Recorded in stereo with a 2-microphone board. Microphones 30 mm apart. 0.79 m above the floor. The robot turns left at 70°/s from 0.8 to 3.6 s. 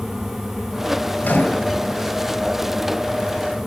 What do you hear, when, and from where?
1.2 s a microwave: 115° left, 2.5 m; by 1.7 s 80° left, 2.5 m